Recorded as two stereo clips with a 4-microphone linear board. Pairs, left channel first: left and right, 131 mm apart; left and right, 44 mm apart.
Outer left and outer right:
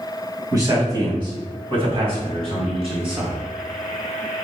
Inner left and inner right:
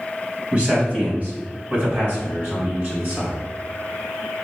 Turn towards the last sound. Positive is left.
turn(degrees=-45)  # may be behind; listen again after turning